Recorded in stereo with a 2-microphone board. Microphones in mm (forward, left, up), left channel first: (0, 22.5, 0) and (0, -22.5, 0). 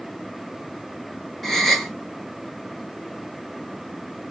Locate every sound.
1.4 s a gasp: 5° left (ahead or behind), 1.7 m